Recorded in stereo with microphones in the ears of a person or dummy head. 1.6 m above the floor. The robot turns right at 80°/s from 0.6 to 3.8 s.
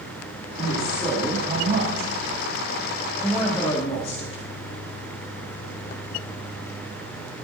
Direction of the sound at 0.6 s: 135° left.